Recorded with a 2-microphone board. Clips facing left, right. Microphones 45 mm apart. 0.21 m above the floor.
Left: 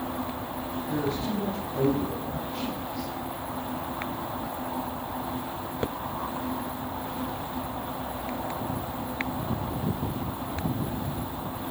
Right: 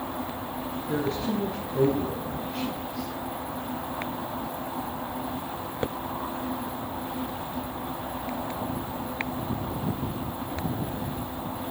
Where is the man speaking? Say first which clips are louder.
Right 2 dB; 70° right (ahead or behind), 3 m.